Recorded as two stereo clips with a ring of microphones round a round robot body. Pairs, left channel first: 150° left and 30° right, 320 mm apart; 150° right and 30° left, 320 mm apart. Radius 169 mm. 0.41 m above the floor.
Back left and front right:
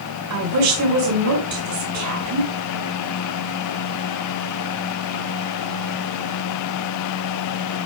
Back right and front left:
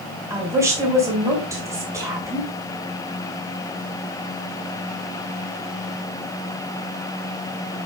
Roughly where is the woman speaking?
Ahead right.